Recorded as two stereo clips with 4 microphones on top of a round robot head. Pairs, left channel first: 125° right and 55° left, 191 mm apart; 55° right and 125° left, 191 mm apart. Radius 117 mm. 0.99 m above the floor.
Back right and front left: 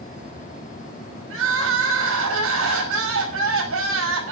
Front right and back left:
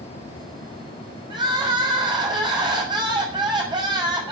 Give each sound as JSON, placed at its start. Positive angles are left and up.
{"t": 1.3, "sound": "crying", "azimuth_deg": 55, "distance_m": 5.5}